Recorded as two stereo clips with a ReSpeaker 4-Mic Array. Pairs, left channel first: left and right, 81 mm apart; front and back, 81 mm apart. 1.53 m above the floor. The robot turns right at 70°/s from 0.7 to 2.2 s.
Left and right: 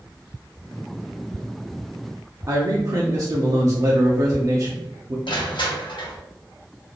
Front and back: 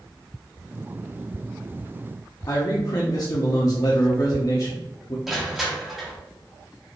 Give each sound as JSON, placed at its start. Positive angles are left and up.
{"t": 2.5, "sound": "a man speaking", "azimuth_deg": -40, "distance_m": 0.6}
{"t": 5.3, "sound": "crushing", "azimuth_deg": 95, "distance_m": 1.1}